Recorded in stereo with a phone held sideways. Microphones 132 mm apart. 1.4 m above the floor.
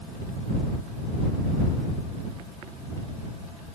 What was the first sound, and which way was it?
Only background noise.